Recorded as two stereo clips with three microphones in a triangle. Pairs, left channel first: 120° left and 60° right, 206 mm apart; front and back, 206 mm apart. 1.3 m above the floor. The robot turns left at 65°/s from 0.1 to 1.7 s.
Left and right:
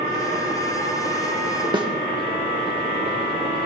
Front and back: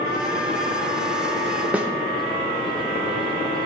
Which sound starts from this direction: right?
A snare drum, at 1.7 s.